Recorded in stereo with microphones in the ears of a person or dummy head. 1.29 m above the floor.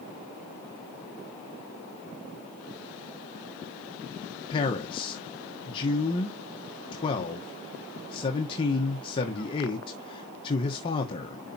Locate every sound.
4.5 s a man speaking: 35° left (ahead or behind), 1.1 m